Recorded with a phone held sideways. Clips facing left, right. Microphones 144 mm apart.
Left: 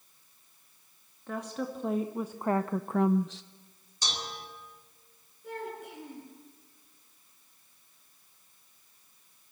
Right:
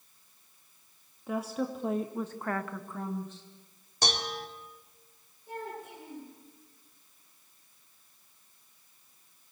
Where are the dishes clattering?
60° right (ahead or behind), 2.5 m.